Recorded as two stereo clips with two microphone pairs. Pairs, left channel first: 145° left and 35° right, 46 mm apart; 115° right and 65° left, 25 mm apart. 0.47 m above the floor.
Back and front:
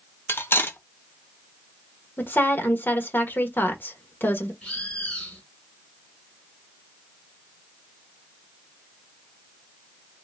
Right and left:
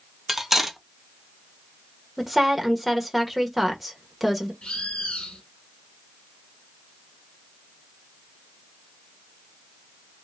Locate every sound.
0.3 s cutlery clinking: 150° left, 0.8 m
2.2 s a woman speaking: 155° left, 1.5 m
4.6 s a bird: 145° right, 2.5 m